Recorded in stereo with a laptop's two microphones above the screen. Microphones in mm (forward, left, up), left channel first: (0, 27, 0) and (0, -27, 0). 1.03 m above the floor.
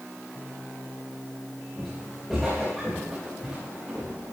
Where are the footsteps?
Centre (ahead or behind), 4 m; by 4.1 s 25° right (ahead or behind), 5 m.